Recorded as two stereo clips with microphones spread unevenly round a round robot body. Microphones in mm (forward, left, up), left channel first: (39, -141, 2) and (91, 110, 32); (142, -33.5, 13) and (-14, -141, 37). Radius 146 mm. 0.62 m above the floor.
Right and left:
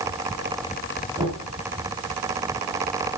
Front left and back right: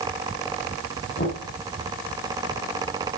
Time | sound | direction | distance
1.2 | knocking | 5° left | 4.5 m